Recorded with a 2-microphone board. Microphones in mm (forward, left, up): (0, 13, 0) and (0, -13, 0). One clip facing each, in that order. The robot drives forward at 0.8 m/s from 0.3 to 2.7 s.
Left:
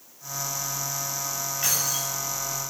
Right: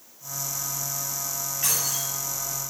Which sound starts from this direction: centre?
Keys jangling, at 1.6 s.